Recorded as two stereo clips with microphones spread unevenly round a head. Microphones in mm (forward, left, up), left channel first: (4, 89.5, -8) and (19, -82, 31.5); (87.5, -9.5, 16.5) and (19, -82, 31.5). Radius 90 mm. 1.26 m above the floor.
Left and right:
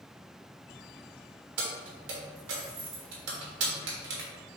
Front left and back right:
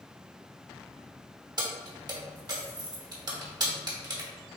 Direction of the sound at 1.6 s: 90° right.